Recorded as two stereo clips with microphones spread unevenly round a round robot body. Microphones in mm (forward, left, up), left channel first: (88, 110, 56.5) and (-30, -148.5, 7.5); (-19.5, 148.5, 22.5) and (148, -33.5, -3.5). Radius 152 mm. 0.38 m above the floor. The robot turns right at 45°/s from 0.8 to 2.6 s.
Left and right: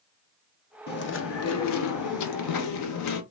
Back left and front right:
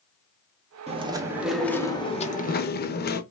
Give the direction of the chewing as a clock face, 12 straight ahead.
12 o'clock.